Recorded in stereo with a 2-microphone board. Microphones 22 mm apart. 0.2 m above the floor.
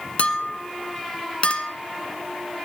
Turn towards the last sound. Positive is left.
turn(degrees=55)  # may be behind; listen again after turning